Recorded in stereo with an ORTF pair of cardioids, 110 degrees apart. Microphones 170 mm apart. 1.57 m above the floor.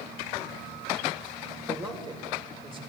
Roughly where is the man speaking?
Ahead right.